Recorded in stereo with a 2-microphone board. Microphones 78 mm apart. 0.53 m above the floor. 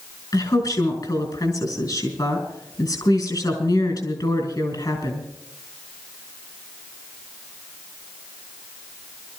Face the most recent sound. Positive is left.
turn(degrees=60)  # may be behind; listen again after turning